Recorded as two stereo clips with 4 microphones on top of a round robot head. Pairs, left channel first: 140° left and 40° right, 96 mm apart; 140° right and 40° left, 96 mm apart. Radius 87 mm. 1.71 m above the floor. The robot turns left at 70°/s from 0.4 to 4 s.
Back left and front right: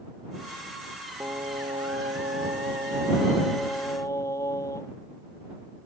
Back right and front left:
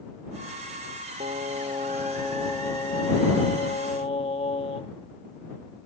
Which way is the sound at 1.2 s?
30° left.